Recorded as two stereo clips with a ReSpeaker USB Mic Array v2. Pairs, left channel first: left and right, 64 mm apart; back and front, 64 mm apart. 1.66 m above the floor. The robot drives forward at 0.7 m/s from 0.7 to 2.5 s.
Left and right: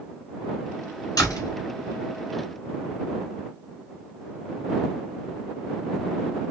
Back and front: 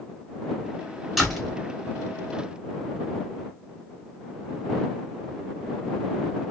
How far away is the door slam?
About 3 m.